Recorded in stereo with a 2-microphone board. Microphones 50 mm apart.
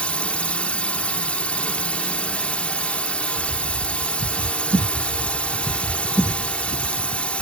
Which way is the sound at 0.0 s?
25° left (ahead or behind).